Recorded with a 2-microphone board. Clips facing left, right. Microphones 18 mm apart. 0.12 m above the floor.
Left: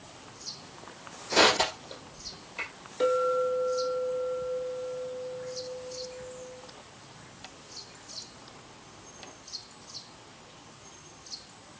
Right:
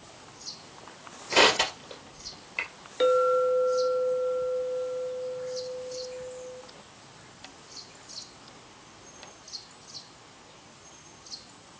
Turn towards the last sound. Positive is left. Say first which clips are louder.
# right 3 dB
turn(degrees=-35)  # may be behind; listen again after turning